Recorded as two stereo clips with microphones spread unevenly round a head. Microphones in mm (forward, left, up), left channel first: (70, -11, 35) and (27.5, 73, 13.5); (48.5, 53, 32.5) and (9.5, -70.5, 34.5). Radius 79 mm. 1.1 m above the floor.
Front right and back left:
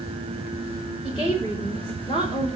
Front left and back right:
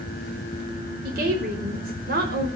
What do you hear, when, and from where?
1.0 s a woman speaking: 125° right, 4.5 m